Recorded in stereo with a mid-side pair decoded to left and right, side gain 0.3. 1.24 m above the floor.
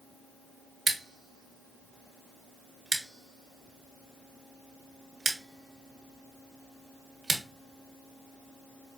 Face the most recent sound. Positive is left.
turn(degrees=-50)